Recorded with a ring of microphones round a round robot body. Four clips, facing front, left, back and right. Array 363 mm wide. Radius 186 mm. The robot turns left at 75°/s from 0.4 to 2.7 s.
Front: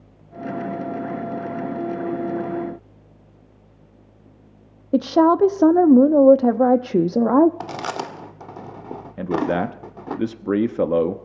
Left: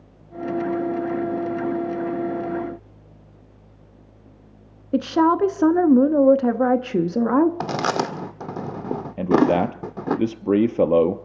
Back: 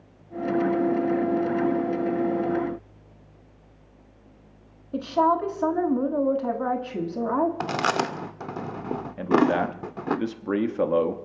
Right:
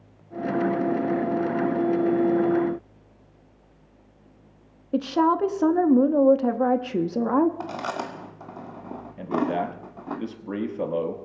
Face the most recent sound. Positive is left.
turn(degrees=60)